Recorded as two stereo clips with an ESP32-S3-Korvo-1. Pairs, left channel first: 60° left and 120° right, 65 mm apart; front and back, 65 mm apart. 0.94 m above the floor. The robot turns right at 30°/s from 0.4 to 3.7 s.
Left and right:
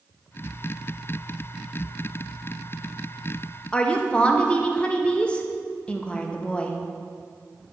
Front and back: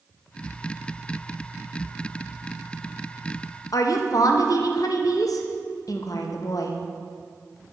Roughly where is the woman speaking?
Ahead.